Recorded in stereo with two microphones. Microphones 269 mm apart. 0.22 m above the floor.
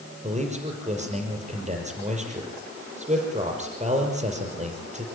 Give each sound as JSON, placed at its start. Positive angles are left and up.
{"t": 0.2, "sound": "a man speaking", "side_deg": -25, "distance_m": 6.5}